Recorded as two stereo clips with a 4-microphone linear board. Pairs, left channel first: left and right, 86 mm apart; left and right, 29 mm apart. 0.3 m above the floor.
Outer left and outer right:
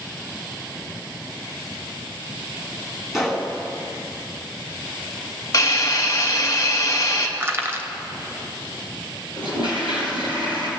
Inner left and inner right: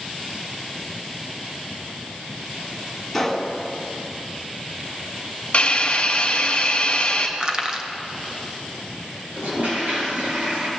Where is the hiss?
45° left (ahead or behind), 1.2 m.